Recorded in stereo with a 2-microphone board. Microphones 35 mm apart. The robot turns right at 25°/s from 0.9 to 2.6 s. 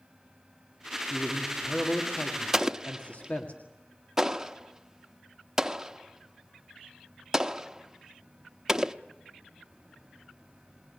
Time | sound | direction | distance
1.1 | a man speaking | 15° left | 2.0 m
2.5 | an explosion | 10° right (ahead or behind) | 0.7 m